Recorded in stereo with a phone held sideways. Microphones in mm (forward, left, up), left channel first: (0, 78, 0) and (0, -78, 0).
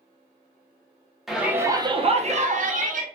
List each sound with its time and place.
1.3 s a shout: centre (ahead or behind), 0.6 m; by 3.0 s 55° right (ahead or behind), 0.8 m